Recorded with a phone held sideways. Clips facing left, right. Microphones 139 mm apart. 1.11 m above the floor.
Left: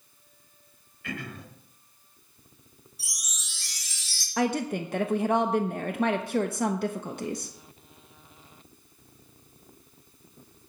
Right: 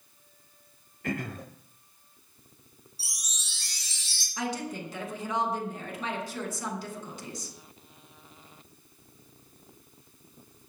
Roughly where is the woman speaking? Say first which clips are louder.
Left 7 dB; left.